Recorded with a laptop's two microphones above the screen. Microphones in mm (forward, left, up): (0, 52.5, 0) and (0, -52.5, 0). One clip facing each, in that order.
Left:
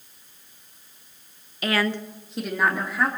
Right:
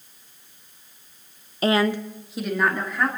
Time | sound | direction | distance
1.6 | a woman speaking | 35° right (ahead or behind) | 0.6 m